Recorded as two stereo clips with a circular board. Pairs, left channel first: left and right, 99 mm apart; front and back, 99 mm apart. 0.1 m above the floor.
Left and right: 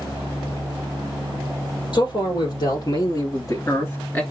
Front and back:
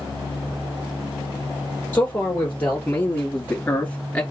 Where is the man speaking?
70° left, 3.5 m; by 4.2 s 50° left, 1.7 m.